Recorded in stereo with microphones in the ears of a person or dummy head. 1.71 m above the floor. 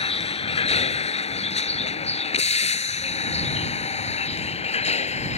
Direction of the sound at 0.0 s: 30° left (ahead or behind).